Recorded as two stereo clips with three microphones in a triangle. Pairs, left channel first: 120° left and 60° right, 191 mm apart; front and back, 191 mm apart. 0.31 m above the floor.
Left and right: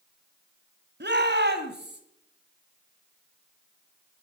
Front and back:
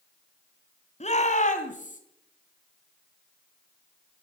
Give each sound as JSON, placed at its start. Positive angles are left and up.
{"t": 1.0, "sound": "a shout", "azimuth_deg": -50, "distance_m": 1.9}